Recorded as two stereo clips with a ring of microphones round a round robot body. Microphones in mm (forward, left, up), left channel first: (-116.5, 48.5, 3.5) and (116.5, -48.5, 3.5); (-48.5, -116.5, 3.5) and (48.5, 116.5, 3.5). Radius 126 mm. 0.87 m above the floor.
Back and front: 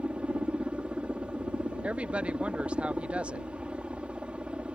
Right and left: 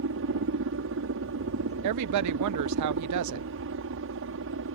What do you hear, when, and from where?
0.0 s a helicopter: 60° left
1.8 s a woman speaking: 60° left